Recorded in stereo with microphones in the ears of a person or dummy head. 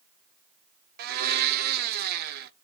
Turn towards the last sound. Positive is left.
turn(degrees=-55)  # may be behind; listen again after turning